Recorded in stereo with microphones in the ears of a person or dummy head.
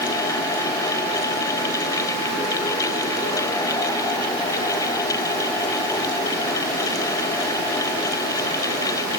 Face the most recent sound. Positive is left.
No sound to turn to.